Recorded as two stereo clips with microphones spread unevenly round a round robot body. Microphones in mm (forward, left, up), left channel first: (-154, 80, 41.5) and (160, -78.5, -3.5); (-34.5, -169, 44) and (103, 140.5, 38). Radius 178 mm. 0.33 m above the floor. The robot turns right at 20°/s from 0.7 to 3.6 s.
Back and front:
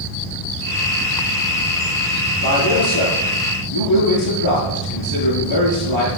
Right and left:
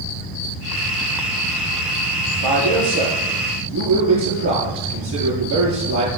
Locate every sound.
2.4 s a man speaking: 90° left, 7 m; by 6.1 s 115° left, 7 m